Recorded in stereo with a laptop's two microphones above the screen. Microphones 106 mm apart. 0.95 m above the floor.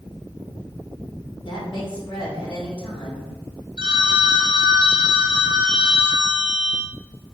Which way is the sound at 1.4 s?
50° left (ahead or behind).